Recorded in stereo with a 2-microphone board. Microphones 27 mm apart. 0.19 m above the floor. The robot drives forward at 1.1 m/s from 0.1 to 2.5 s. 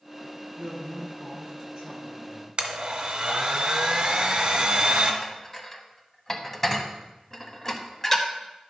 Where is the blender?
40° right (ahead or behind), 1.2 m.